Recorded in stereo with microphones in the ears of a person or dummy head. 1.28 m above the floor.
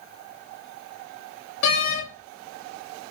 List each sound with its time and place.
1.6 s a door slam: 80° left, 1.3 m